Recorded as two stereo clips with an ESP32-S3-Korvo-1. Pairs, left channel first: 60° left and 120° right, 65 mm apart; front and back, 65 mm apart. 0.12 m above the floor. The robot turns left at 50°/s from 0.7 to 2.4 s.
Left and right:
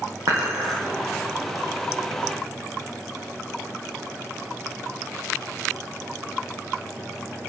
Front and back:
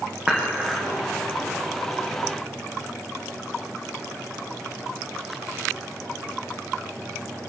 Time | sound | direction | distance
0.3 | dishes clattering | 115° right | 4 m